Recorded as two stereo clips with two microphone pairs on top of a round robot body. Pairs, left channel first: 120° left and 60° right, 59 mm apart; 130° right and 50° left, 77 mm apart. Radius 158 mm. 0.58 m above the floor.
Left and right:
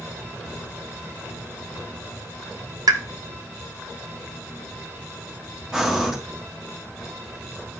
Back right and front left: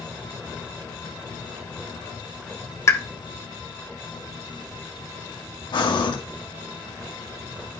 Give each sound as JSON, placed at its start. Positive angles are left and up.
{"t": 2.9, "sound": "a pop", "azimuth_deg": -75, "distance_m": 0.9}
{"t": 5.7, "sound": "breathing", "azimuth_deg": -140, "distance_m": 2.5}